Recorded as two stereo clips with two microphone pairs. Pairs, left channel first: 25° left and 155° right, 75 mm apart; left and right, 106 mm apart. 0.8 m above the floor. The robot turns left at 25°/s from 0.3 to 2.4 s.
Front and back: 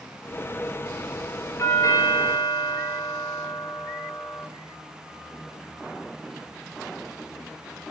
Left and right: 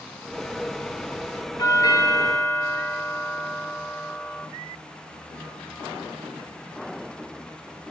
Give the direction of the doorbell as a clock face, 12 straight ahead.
10 o'clock.